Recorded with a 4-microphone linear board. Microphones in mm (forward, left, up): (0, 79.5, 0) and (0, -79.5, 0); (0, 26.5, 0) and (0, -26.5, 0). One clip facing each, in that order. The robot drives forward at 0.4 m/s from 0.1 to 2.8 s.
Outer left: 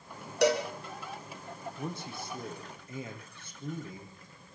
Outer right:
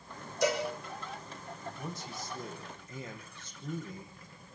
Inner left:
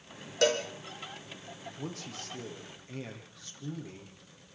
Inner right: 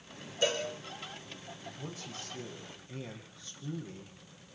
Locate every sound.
0.4 s a cowbell: 75° left (ahead or behind), 5 m
1.8 s a man speaking: 60° left (ahead or behind), 6 m